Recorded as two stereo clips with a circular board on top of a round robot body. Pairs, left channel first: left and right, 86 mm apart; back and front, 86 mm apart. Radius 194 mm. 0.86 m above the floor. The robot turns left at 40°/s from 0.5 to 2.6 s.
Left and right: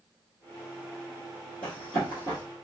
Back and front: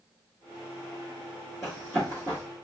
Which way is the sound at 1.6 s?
85° left.